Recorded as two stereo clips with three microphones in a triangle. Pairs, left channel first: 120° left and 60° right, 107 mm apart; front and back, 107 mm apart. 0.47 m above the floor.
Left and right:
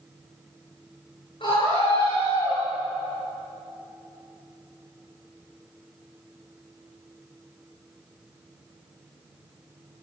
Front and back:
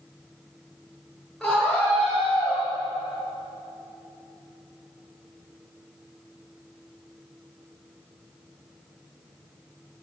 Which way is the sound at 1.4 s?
85° left.